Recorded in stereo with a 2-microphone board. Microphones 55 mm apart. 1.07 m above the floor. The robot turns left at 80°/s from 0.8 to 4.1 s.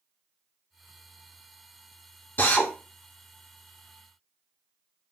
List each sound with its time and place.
2.4 s a drill: 40° left (ahead or behind), 0.6 m; by 2.7 s 20° left (ahead or behind), 0.6 m